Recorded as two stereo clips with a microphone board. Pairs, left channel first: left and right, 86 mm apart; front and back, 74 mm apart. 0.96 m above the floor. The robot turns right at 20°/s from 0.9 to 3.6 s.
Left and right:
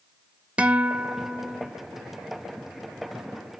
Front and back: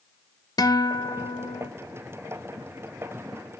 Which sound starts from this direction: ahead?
A guitar, at 0.6 s.